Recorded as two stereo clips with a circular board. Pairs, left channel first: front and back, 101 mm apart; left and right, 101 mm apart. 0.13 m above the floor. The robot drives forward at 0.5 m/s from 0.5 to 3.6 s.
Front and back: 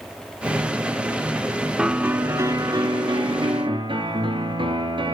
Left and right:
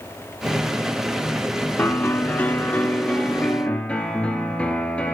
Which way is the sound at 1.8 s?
105° left.